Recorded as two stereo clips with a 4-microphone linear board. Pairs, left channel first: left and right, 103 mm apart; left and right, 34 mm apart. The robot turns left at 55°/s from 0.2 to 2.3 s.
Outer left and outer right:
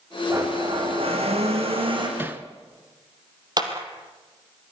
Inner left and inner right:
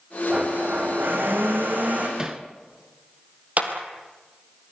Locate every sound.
0.3 s a blender: 30° right, 5 m; by 2.1 s 130° right, 5 m
2.2 s hammering: 20° right (ahead or behind), 1.5 m
3.6 s a clap: 45° right (ahead or behind), 3 m